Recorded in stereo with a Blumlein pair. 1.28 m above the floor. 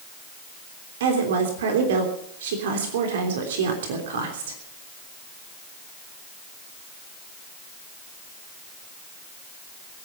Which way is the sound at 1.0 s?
60° right.